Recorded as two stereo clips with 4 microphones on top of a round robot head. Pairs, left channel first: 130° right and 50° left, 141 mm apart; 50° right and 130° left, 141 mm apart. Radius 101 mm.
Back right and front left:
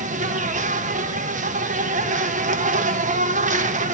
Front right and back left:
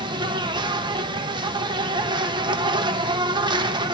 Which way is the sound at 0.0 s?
75° left.